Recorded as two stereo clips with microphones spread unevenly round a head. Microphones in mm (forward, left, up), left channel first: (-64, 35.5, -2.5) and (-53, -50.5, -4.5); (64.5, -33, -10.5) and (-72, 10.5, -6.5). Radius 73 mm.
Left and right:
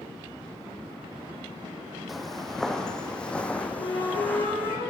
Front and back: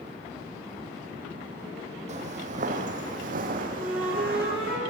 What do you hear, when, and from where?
2.1 s footsteps: 175° right, 2.5 m; by 4.8 s 160° left, 3.5 m
3.8 s a flute: 80° left, 8.5 m